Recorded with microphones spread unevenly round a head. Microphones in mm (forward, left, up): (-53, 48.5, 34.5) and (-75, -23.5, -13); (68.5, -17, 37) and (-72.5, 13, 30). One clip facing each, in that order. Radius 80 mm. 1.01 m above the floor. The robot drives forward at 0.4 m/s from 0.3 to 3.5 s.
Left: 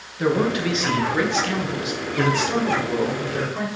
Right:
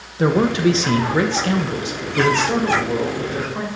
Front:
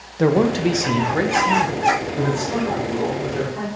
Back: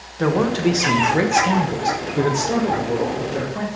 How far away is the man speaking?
About 0.5 m.